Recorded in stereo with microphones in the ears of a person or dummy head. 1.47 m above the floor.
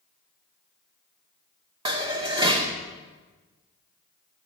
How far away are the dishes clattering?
About 2 m.